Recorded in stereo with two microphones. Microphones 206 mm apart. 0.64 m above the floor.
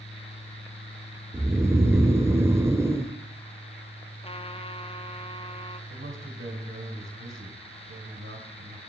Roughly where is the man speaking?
Right.